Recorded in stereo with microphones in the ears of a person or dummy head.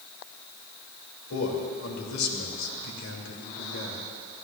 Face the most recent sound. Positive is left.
turn(degrees=75)  # may be behind; listen again after turning